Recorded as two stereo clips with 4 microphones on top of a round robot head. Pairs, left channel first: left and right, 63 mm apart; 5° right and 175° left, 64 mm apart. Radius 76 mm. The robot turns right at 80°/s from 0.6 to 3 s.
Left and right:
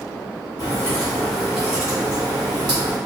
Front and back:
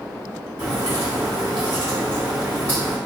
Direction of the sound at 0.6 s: 115° left.